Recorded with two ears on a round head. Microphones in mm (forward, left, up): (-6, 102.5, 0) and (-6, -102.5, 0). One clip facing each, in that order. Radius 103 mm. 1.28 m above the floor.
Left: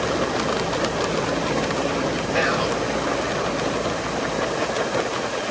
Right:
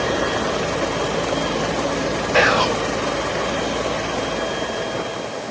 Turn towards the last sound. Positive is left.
turn(degrees=-65)  # may be behind; listen again after turning